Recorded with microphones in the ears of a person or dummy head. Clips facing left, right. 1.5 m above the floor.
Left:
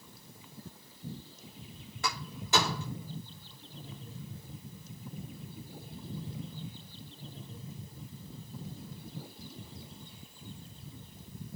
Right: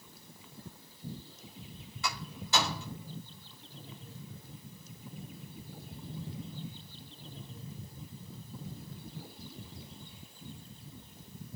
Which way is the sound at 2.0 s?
55° left (ahead or behind).